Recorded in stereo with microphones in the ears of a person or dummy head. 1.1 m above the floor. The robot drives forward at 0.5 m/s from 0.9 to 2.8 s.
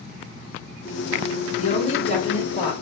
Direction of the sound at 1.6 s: 40° left (ahead or behind).